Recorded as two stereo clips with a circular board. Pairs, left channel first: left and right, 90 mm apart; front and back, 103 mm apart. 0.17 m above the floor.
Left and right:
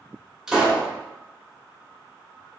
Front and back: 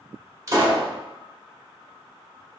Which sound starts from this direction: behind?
A pop, at 0.5 s.